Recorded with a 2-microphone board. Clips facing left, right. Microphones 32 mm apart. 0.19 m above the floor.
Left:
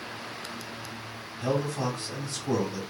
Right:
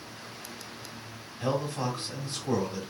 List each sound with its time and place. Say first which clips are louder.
1.4 s a man speaking: left 1 dB; 20° right (ahead or behind), 1.1 m